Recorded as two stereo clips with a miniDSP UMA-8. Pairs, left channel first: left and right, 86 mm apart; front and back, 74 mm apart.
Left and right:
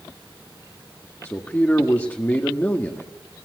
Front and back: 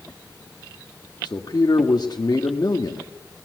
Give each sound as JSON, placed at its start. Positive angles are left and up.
{"t": 1.2, "sound": "a man speaking", "azimuth_deg": 25, "distance_m": 1.5}